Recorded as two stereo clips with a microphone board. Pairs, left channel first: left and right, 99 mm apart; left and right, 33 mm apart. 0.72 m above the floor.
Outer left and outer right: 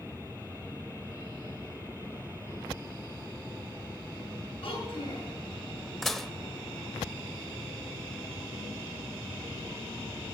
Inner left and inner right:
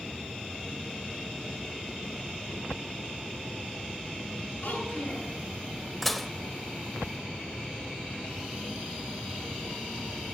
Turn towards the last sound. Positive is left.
turn(degrees=0)  # may be behind; listen again after turning